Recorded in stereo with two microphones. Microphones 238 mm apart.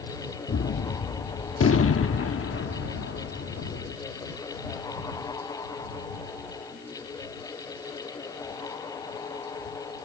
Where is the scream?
I don't hear a scream.